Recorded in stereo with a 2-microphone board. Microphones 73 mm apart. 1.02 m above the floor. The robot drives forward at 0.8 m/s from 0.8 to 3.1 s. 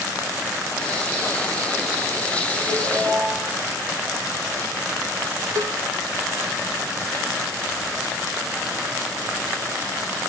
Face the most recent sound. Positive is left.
turn(degrees=-55)  # may be behind; listen again after turning